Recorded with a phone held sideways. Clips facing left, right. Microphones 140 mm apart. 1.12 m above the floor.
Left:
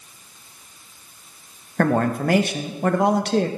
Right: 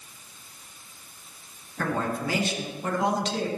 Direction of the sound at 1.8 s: 60° left (ahead or behind).